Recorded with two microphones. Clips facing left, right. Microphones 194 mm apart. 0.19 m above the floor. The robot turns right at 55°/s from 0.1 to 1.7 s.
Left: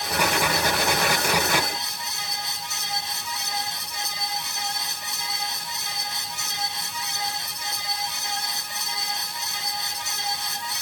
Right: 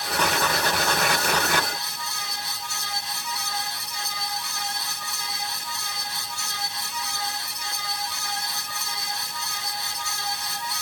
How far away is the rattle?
I don't hear a rattle.